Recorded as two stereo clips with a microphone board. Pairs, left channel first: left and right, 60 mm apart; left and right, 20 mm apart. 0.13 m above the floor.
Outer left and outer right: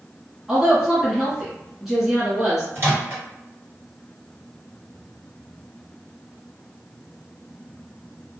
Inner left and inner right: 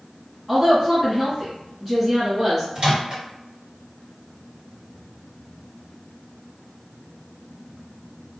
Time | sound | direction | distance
0.5 | a woman speaking | 5° right (ahead or behind) | 1.3 m
2.8 | a microwave | 40° right (ahead or behind) | 1.8 m